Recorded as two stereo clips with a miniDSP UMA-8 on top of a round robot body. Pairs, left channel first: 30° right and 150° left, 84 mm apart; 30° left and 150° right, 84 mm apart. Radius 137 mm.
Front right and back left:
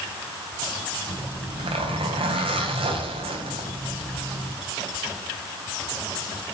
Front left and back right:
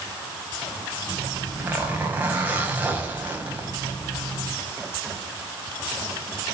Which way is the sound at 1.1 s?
140° left.